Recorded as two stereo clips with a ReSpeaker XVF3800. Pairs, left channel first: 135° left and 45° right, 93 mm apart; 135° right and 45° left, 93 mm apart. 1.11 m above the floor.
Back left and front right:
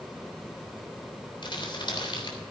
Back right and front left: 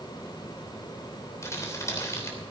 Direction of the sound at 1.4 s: 165° left.